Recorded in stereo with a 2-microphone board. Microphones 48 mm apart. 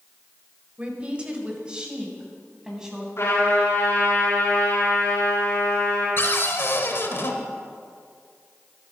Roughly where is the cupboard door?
Left.